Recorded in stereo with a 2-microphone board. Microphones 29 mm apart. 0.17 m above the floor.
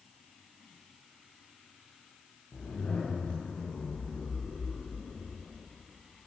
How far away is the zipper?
About 9.5 m.